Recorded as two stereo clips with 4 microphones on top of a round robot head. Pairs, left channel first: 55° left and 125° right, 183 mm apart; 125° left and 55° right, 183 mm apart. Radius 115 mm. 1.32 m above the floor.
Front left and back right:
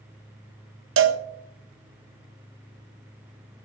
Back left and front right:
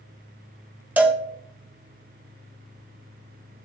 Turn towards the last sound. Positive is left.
turn(degrees=-140)